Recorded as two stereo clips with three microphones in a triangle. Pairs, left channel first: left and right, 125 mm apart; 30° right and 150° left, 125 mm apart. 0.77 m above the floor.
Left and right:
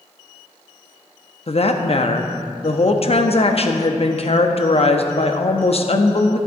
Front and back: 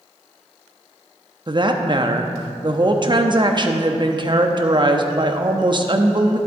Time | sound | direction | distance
1.5 | a woman speaking | 110° left | 0.7 m